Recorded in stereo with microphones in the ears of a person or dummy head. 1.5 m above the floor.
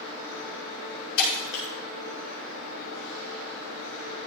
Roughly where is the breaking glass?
Left.